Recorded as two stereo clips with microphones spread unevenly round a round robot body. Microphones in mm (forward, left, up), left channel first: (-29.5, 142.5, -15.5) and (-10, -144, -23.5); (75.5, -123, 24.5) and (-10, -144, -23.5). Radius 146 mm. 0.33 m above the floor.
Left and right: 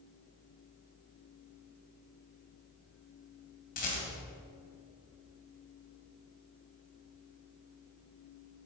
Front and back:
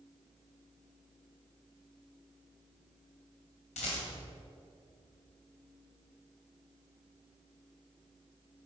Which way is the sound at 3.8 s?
35° left.